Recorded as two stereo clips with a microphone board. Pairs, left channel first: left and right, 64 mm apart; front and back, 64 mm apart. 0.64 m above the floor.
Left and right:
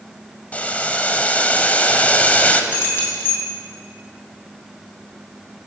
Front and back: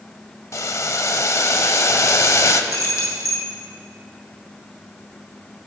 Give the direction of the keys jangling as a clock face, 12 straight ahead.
11 o'clock.